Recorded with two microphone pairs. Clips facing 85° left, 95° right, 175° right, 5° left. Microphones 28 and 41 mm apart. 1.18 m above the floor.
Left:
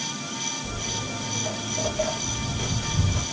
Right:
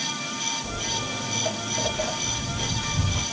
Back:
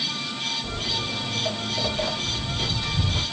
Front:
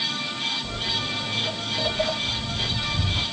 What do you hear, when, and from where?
0.6 s footsteps: 120° right, 1.8 m; by 3.2 s 150° left, 2 m